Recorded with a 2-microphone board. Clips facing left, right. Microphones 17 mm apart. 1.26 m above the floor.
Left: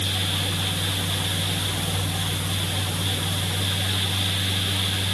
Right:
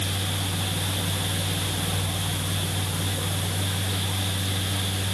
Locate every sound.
Only background noise.